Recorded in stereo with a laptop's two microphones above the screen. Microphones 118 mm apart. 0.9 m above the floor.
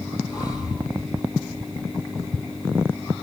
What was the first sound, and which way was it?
Breathing, 35° left (ahead or behind).